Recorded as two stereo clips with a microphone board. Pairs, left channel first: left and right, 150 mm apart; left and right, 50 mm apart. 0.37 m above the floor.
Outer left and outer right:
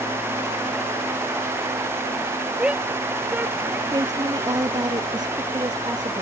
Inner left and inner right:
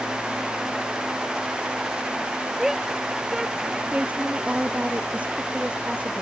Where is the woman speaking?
25° right (ahead or behind).